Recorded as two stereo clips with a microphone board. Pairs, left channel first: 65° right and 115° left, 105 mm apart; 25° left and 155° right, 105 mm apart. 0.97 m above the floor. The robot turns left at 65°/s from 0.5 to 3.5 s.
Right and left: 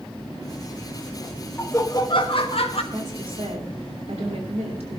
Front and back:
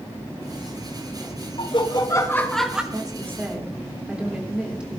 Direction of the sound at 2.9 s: 160° left.